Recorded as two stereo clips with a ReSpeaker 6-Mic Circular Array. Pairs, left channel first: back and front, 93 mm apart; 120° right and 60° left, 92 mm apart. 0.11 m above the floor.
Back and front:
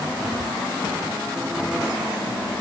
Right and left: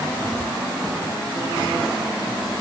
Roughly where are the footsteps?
I don't hear footsteps.